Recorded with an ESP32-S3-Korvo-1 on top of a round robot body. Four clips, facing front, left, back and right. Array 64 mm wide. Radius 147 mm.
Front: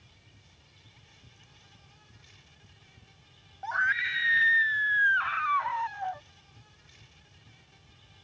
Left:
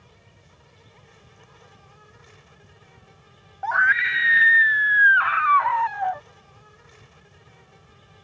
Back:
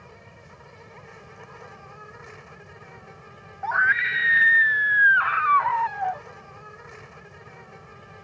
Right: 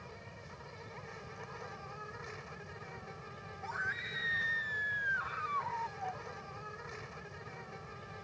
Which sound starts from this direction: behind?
An insect, at 0.0 s.